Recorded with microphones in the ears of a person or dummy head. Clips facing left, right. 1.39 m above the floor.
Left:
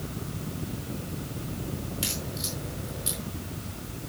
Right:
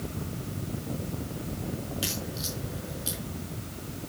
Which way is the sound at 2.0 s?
5° right (ahead or behind).